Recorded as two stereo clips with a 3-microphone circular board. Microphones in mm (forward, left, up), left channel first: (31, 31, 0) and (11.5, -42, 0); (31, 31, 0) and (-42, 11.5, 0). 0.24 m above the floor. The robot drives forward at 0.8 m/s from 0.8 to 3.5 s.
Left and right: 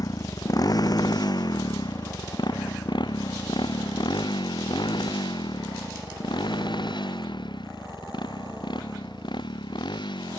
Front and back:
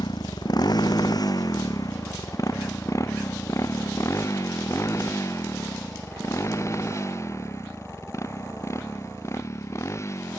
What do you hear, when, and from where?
0.0 s a motorcycle: 35° left; by 10.4 s 65° left